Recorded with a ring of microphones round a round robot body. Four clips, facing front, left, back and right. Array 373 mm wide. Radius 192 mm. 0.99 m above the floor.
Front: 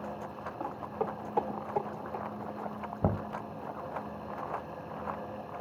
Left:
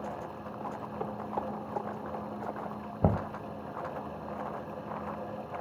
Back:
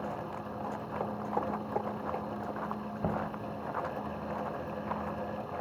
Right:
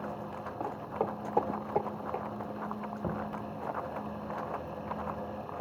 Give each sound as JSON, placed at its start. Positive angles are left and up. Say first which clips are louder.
{"t": 0.6, "sound": "footsteps", "louder": "right 4 dB, front 2 dB", "azimuth_deg": -80, "distance_m": 3.0}
{"t": 3.0, "sound": "knocking", "louder": "left 8 dB, front 2 dB", "azimuth_deg": 70, "distance_m": 0.7}